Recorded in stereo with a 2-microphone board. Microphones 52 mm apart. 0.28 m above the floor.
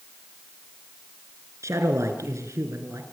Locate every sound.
1.6 s a man speaking: 70° right (ahead or behind), 3.5 m